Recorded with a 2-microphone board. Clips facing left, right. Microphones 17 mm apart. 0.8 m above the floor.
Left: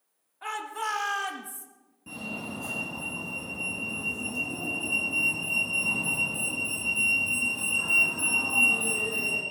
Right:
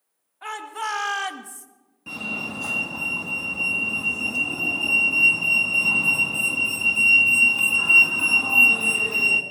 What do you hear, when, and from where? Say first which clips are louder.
0.4 s a shout: right 2 dB; 10° right (ahead or behind), 2 m; by 1.7 s 45° right (ahead or behind), 1.3 m
2.1 s a fire alarm: right 7 dB; 50° right (ahead or behind), 2 m